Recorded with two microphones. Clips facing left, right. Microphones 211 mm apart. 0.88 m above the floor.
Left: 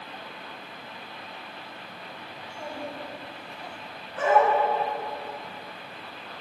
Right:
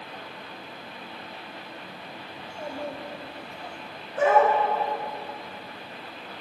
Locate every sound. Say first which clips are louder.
2.4 s a child speaking: right 2 dB; 25° right (ahead or behind), 2.5 m
4.2 s a dog barking: right 2 dB; 40° right (ahead or behind), 5.5 m